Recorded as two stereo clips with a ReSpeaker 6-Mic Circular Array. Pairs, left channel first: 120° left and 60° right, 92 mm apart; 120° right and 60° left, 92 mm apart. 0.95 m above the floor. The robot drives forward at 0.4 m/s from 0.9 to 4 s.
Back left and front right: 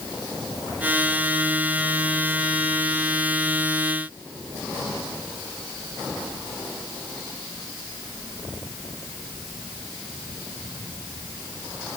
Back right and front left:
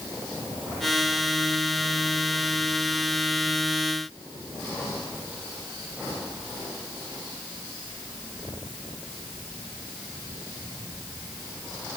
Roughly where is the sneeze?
No sneeze in this recording.